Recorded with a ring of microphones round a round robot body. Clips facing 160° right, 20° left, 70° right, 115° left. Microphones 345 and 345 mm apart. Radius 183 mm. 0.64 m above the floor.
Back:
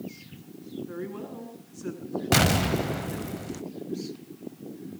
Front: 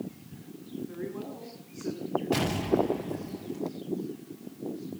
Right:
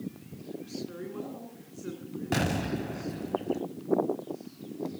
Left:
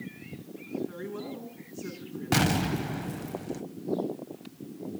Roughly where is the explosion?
Behind.